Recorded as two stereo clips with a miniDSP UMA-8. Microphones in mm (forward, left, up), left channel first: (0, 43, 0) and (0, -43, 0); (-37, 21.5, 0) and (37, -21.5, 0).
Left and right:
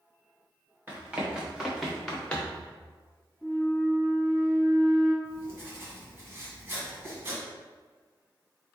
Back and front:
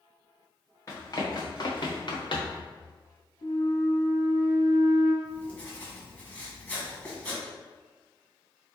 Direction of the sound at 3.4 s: 175° right.